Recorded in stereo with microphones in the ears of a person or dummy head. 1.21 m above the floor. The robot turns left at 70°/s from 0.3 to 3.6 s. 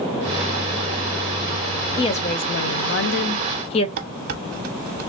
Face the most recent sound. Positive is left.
turn(degrees=-50)  # may be behind; listen again after turning